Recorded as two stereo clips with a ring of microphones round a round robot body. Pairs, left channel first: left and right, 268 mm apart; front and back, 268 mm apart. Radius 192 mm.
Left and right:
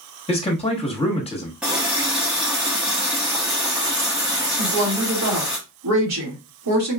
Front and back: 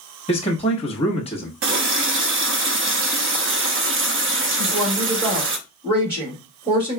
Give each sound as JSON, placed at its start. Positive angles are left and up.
{"t": 0.3, "sound": "a man speaking", "azimuth_deg": 45, "distance_m": 1.2}
{"t": 1.6, "sound": "a running tap", "azimuth_deg": -175, "distance_m": 0.5}
{"t": 4.6, "sound": "a woman speaking", "azimuth_deg": -105, "distance_m": 1.9}